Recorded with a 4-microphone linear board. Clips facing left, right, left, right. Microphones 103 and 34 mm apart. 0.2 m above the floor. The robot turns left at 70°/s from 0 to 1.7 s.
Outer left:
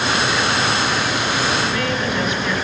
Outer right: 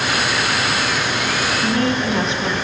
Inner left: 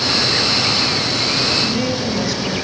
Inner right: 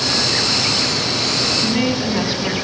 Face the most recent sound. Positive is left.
turn(degrees=-30)  # may be behind; listen again after turning